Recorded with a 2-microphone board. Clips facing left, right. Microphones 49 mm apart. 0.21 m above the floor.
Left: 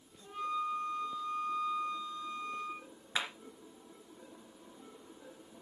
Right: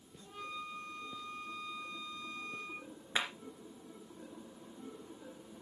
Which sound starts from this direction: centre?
A flute, at 0.2 s.